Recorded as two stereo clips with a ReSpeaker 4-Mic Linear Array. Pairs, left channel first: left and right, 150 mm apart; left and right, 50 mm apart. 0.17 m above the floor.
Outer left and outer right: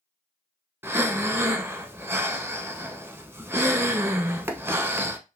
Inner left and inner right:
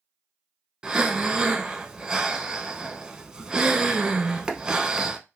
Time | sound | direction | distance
0.8 | breathing | 15° right (ahead or behind) | 0.5 m